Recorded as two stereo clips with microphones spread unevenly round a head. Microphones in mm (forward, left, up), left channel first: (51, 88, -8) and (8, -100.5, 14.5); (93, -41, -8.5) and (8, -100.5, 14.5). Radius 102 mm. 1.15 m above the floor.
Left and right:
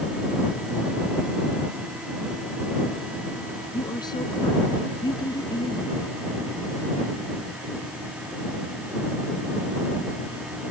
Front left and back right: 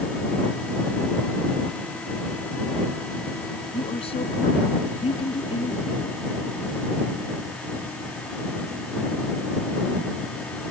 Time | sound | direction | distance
3.7 | a woman speaking | 5° left | ?